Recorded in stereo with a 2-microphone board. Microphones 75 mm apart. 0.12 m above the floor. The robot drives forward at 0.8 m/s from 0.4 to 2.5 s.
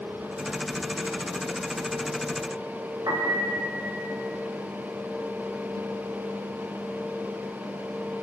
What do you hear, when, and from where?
3.1 s a piano: 55° right (ahead or behind), 8 m